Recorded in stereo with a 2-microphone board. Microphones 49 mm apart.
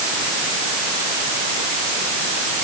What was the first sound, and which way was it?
Only background noise.